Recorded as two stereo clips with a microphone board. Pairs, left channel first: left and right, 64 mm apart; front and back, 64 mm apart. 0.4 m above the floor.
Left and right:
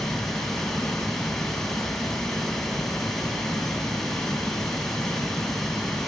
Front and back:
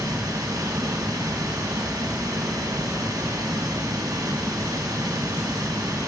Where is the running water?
170° left, 3.5 m.